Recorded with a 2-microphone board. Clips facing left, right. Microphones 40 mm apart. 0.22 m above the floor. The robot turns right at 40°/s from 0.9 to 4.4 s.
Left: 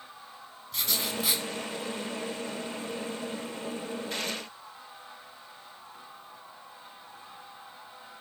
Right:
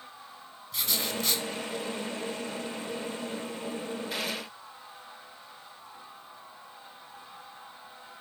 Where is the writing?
Centre (ahead or behind), 0.6 m; by 1.4 s 20° left (ahead or behind), 0.6 m.